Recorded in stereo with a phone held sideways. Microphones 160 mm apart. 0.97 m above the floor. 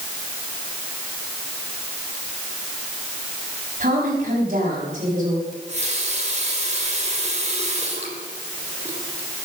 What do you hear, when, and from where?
3.8 s a woman speaking: 55° right (ahead or behind), 6 m
5.5 s a running tap: 45° right (ahead or behind), 3 m